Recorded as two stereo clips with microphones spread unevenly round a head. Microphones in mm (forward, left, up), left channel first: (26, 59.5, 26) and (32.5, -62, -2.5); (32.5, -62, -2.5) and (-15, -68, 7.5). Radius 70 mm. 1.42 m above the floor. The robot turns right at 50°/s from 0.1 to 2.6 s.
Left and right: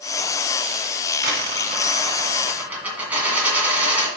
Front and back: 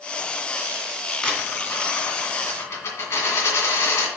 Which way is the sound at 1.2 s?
70° right.